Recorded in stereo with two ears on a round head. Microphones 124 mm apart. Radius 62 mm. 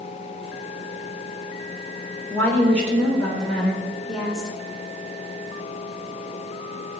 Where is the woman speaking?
15° left (ahead or behind), 3 m; by 4.5 s 5° right (ahead or behind), 3.5 m.